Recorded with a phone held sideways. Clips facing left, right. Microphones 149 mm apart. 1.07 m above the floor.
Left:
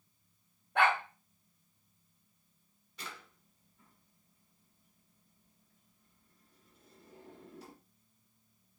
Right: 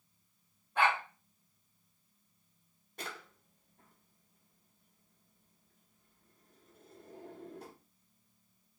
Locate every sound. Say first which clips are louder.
0.8 s a dog barking: left 1 dB; 75° left (ahead or behind), 2.5 m
3.0 s a drawer: right 4 dB; 50° right (ahead or behind), 1.2 m